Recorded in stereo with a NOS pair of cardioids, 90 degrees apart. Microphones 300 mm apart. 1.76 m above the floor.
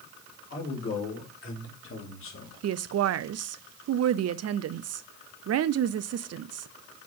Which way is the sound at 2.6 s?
55° right.